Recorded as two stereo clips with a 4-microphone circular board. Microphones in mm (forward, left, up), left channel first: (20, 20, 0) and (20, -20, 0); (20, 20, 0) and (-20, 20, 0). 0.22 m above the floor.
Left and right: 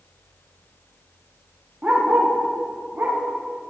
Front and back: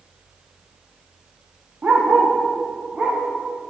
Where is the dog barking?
145° right, 5 m; by 3.2 s 120° right, 5.5 m.